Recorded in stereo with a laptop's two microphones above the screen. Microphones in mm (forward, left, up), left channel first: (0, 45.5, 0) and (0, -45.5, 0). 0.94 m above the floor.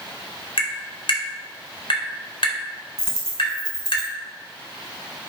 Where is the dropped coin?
10° left (ahead or behind), 3.5 m.